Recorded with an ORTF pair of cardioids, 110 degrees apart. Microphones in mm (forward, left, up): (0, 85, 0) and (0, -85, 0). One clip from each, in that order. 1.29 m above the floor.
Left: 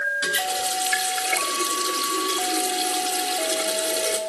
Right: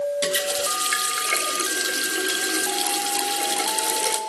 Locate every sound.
0.2 s a running tap: 40° right, 1.4 m